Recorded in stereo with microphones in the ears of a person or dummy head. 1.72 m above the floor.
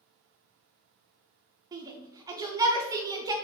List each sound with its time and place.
1.7 s a shout: 20° right (ahead or behind), 0.6 m